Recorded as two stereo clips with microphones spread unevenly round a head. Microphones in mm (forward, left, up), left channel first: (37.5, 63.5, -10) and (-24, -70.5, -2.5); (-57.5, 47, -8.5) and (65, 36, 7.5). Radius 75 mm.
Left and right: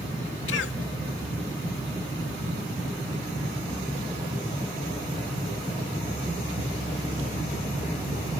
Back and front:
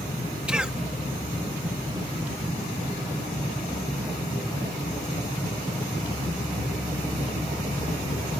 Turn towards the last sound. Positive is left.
turn(degrees=75)